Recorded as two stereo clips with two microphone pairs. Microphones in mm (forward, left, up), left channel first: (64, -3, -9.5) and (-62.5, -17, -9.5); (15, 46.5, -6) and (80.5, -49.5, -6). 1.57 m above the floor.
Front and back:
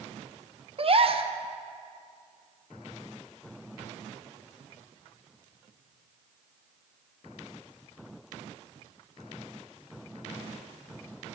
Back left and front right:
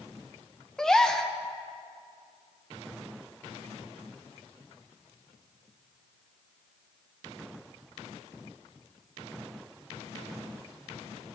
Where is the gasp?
150° right, 0.6 m.